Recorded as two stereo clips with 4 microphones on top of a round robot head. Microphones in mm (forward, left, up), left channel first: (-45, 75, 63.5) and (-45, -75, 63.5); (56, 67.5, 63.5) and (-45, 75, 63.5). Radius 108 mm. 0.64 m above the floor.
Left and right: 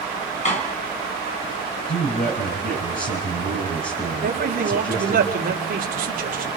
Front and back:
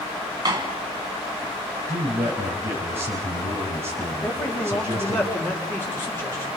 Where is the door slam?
130° left, 4 m.